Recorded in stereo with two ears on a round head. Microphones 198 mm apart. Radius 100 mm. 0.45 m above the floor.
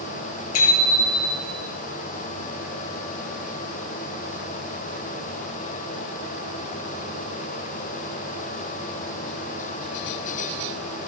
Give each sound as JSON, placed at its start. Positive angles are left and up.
{"t": 0.5, "sound": "a bicycle bell", "side_deg": 75, "distance_m": 6.0}